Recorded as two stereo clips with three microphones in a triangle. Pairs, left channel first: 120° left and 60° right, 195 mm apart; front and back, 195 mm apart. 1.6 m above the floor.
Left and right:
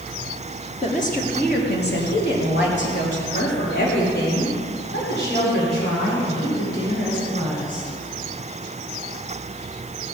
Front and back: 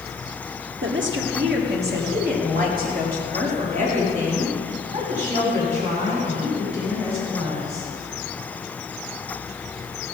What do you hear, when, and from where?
0.8 s a woman speaking: 175° left, 1.5 m; by 7.9 s 125° left, 8 m